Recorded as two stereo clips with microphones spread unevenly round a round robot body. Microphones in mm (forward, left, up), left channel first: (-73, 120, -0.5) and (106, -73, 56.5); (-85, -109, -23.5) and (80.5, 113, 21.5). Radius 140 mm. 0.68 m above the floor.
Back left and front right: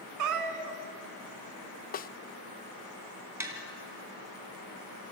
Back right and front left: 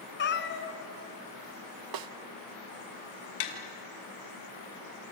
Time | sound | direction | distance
0.2 | a cat meowing | 70° right | 1.6 m
1.9 | a snare drum | 75° left | 0.7 m
3.4 | tapping | 130° right | 2.5 m